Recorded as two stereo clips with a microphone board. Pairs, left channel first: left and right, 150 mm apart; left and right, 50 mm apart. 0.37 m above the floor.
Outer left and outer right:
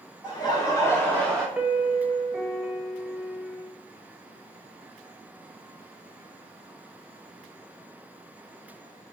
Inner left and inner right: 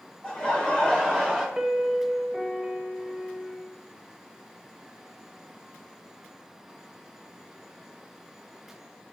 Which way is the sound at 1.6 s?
10° right (ahead or behind).